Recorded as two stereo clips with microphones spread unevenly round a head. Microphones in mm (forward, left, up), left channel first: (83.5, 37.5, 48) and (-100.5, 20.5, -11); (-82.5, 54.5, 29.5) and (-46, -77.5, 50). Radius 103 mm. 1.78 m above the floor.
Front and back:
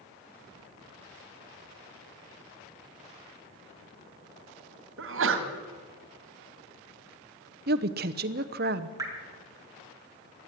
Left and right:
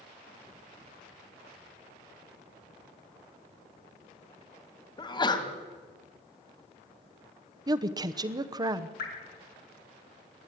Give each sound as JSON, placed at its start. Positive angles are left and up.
{"t": 5.0, "sound": "a sneeze", "azimuth_deg": 165, "distance_m": 2.5}
{"t": 7.7, "sound": "a woman speaking", "azimuth_deg": -125, "distance_m": 0.9}
{"t": 9.0, "sound": "dripping", "azimuth_deg": 105, "distance_m": 4.5}